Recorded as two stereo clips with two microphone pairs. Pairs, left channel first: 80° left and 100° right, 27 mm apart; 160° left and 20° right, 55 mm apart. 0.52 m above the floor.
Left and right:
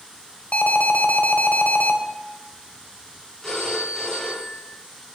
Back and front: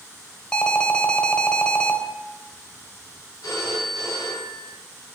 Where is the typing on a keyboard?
No typing on a keyboard in this recording.